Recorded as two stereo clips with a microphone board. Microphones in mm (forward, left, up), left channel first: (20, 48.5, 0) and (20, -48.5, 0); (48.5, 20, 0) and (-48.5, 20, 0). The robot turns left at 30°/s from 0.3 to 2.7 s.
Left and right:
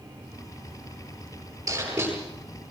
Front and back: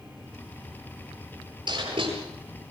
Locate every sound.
1.7 s writing: 145° right, 9.5 m; by 2.1 s 160° right, 9.5 m